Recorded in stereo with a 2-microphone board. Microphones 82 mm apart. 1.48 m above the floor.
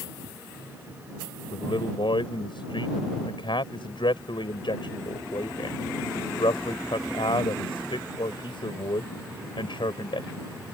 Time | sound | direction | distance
1.5 | a man speaking | 80° left | ?